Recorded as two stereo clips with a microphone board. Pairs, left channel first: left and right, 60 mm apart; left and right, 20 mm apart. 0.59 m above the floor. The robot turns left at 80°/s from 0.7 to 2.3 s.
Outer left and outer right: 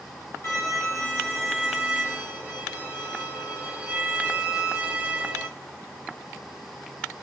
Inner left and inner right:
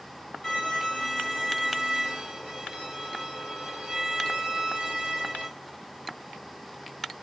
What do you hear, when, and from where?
0.4 s a violin: 100° left, 1.7 m; by 5.5 s 30° right, 1.7 m